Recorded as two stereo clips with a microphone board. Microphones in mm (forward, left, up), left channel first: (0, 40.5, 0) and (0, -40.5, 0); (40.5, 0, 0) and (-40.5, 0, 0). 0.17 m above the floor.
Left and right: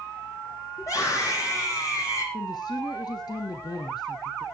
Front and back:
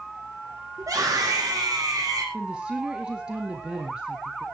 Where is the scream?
135° left, 8 m; by 2.2 s 130° left, 7 m.